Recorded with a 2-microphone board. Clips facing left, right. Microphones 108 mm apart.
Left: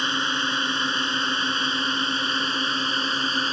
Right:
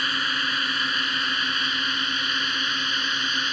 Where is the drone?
25° left (ahead or behind); by 3.5 s 35° left (ahead or behind).